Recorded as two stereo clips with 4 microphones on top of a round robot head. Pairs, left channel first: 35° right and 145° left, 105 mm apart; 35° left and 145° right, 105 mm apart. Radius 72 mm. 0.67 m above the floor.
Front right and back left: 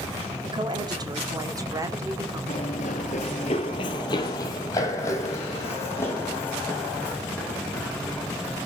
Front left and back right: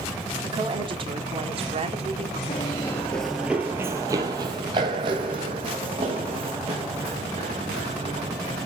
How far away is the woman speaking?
About 1.9 m.